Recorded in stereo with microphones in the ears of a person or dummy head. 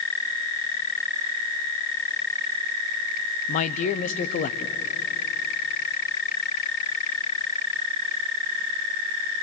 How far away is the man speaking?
About 0.8 m.